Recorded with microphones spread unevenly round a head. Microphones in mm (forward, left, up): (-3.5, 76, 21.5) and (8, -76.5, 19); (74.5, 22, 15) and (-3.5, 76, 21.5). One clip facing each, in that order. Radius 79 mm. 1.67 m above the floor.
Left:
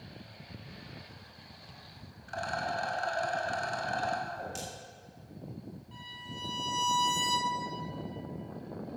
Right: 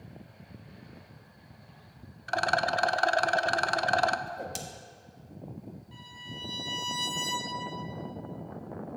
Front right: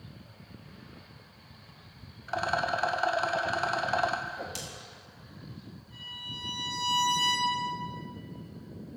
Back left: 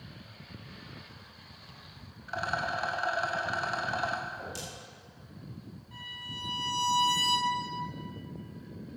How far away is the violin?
About 3.5 m.